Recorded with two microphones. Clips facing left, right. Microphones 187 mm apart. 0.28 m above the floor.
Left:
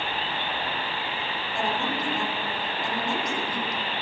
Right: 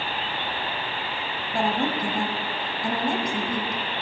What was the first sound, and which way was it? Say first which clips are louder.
A woman speaking: right 5 dB; 50° right (ahead or behind).